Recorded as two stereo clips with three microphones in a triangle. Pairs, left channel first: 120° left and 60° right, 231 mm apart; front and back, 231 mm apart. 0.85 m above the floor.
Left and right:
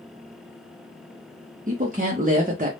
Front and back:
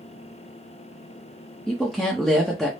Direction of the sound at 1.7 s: 90° right.